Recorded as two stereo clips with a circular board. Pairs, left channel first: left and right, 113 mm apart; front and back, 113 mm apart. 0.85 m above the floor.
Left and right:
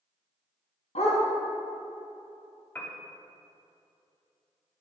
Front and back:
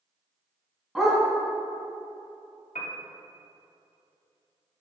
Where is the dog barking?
95° left, 2.5 m.